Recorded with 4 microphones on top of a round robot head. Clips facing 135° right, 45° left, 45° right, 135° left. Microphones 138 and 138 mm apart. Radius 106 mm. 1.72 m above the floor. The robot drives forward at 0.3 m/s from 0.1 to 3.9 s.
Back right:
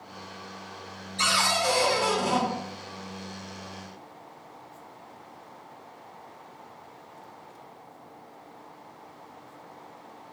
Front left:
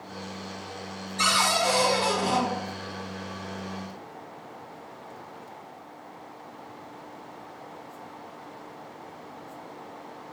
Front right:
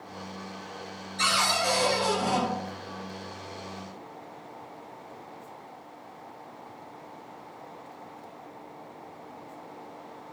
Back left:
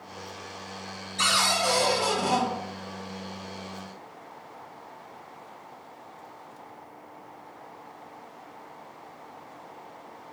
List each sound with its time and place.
1.2 s a cupboard door: 160° left, 2.0 m